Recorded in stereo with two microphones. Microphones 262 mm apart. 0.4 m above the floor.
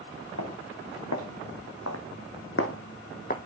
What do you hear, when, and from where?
0.4 s footsteps: 85° left, 2.5 m; by 3.4 s 35° left (ahead or behind), 1.1 m